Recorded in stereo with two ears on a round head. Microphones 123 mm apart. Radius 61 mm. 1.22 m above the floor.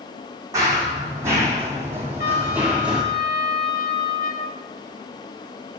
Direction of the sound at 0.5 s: 25° right (ahead or behind).